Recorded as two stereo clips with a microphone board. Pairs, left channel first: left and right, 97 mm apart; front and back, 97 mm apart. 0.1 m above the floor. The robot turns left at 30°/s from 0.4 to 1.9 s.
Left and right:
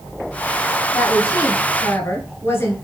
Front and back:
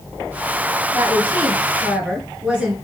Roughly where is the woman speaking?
Behind left.